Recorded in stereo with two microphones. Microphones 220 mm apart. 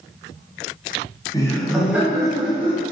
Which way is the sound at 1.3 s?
20° left (ahead or behind).